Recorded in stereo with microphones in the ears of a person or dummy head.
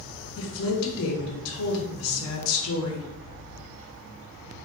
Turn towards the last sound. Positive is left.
turn(degrees=70)  # may be behind; listen again after turning